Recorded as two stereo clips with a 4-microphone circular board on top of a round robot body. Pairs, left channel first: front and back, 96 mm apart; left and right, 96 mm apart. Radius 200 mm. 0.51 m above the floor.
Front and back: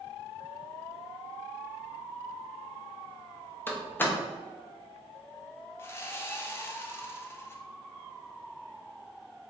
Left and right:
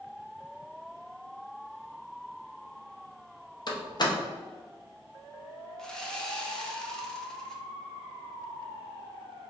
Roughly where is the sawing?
Ahead.